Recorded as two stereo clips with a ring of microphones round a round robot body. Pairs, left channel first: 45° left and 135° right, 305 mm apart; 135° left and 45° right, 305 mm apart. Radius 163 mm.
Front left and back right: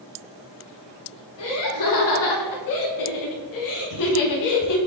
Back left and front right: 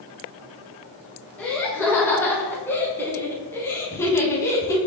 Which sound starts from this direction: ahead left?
Laughter, at 1.4 s.